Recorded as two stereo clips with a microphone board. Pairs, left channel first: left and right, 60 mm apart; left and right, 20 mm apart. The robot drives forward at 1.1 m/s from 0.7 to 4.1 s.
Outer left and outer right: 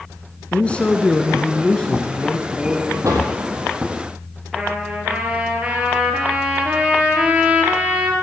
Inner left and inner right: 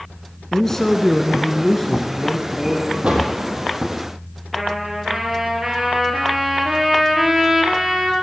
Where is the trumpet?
20° right (ahead or behind), 2.5 m.